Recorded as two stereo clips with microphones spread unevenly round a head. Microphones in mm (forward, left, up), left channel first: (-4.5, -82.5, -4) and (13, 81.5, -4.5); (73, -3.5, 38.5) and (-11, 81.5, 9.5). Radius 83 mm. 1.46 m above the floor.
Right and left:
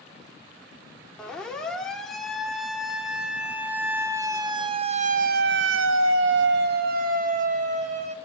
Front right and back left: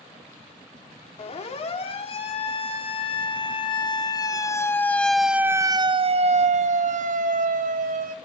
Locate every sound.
1.2 s a siren: 10° right, 4 m; by 8.2 s 135° left, 2.5 m